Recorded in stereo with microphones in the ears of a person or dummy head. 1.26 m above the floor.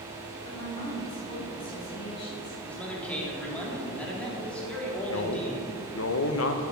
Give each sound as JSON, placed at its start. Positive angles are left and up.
{"t": 0.4, "sound": "a woman speaking", "side_deg": 40, "distance_m": 3.5}
{"t": 2.7, "sound": "a man speaking", "side_deg": 5, "distance_m": 3.0}
{"t": 5.1, "sound": "a man speaking", "side_deg": 80, "distance_m": 1.0}